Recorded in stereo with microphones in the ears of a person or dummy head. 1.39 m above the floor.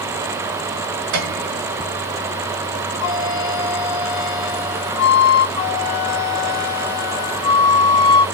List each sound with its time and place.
1.1 s a piano: 60° right (ahead or behind), 3 m
3.0 s a flute: 65° left (ahead or behind), 2.5 m
5.6 s a flute: 20° left (ahead or behind), 1.2 m